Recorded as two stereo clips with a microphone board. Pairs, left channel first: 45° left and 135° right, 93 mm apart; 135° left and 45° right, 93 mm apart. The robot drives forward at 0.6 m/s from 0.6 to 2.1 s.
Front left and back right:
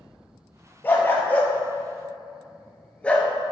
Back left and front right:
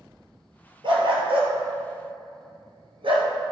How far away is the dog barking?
About 2.5 m.